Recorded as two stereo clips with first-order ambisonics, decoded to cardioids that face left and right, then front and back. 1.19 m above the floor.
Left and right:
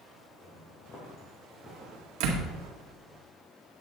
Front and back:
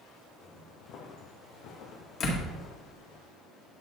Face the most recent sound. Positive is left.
turn(degrees=-60)